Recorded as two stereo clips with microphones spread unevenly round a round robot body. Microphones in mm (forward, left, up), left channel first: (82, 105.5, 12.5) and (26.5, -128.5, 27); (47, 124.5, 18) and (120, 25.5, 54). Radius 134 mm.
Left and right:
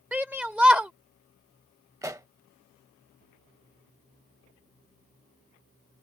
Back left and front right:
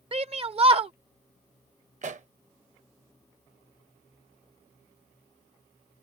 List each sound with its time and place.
0.1 s a shout: 20° right
2.0 s a pop: 25° right